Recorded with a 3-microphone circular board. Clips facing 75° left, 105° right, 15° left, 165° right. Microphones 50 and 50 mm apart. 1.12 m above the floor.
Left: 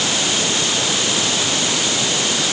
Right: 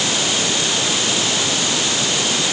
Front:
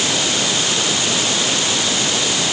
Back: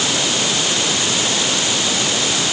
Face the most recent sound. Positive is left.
No sound to turn to.